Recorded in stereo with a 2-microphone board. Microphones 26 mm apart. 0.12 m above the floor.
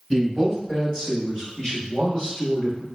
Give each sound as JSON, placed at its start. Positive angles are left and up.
{"t": 0.1, "sound": "a man speaking", "side_deg": 20, "distance_m": 1.8}